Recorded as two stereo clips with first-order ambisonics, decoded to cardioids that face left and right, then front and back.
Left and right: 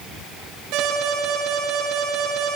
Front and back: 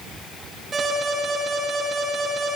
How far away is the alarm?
About 10 m.